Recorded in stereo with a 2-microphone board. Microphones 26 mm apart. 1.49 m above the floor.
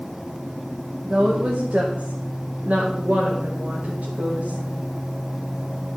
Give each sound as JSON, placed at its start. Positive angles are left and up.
{"t": 1.0, "sound": "a woman speaking", "side_deg": -50, "distance_m": 2.0}